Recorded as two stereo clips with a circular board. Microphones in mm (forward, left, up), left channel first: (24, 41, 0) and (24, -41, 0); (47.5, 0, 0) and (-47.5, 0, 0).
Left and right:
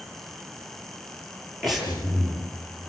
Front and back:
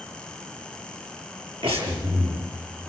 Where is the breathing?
Straight behind, 7 m.